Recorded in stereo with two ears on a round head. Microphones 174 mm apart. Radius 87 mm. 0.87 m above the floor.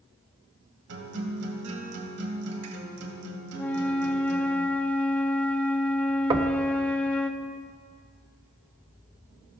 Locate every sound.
0.9 s a guitar: 85° right, 2.5 m
3.5 s a flute: 5° left (ahead or behind), 0.7 m
6.3 s knocking: 20° right (ahead or behind), 0.9 m